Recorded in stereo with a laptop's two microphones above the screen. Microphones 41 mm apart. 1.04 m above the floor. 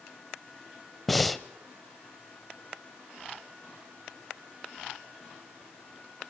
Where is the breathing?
5° left (ahead or behind), 1.1 m.